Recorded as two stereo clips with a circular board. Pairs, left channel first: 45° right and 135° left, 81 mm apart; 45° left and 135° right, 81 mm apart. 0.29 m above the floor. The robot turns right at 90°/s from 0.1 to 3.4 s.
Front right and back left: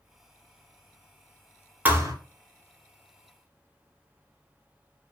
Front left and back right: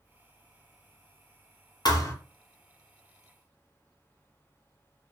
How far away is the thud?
About 0.5 m.